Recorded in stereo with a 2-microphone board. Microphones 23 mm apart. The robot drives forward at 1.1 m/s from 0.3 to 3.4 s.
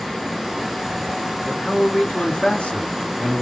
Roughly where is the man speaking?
Left.